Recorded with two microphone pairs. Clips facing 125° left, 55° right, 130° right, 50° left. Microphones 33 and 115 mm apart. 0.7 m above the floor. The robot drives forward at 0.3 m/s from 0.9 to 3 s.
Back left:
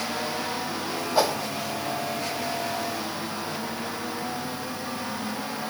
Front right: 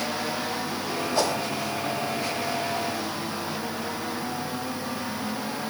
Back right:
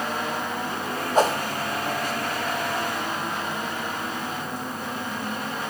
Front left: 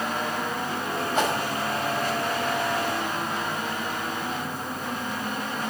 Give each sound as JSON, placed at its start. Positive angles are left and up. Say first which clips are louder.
{"t": 1.1, "sound": "a whoosh", "louder": "back left 3 dB, back right 5 dB", "azimuth_deg": -170, "distance_m": 1.3}